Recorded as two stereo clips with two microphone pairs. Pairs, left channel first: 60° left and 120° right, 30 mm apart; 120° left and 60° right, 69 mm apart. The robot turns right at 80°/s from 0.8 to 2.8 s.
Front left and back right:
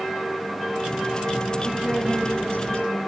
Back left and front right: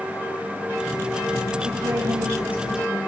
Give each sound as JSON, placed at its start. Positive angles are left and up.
{"t": 1.6, "sound": "a woman speaking", "azimuth_deg": -65, "distance_m": 10.0}